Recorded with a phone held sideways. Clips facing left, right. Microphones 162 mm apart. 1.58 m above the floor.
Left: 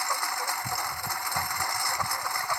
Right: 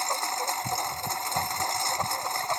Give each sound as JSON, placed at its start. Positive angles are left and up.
{"t": 0.0, "sound": "a lawn mower", "side_deg": -25}